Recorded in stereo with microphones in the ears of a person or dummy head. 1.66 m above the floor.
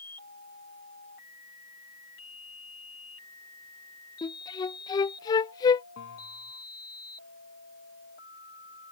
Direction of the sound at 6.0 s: 60° left (ahead or behind).